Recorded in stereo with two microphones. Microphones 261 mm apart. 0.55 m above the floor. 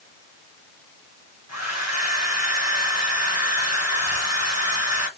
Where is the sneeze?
No sneeze in this recording.